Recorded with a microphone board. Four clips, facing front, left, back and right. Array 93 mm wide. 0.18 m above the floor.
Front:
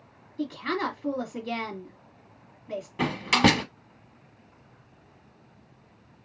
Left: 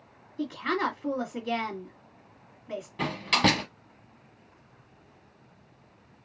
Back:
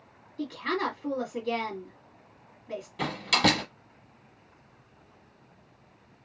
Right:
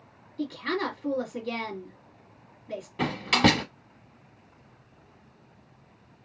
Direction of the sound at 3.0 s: 20° right.